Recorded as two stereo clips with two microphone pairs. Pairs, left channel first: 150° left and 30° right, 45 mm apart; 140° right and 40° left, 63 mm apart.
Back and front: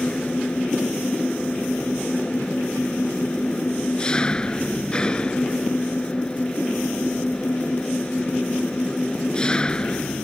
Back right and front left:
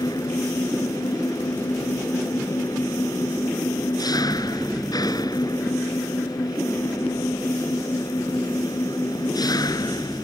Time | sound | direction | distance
0.0 | an engine running | 140° right | ?